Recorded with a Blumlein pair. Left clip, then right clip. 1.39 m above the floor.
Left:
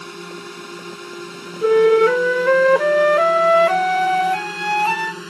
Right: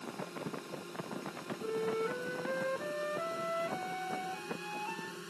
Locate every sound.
0.0 s a drone: 55° left
1.6 s a flute: 50° left